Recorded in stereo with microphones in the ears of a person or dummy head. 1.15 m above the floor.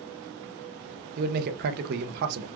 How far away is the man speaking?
About 0.5 m.